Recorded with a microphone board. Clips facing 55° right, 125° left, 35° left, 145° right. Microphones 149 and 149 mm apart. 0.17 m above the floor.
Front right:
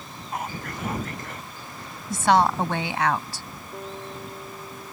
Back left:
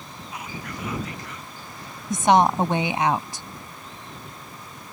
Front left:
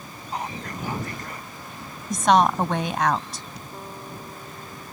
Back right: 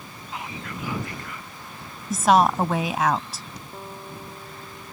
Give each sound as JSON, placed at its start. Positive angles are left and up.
{"t": 0.3, "sound": "whispering", "azimuth_deg": -15}
{"t": 2.1, "sound": "a woman speaking", "azimuth_deg": 135}
{"t": 3.7, "sound": "a guitar", "azimuth_deg": -60}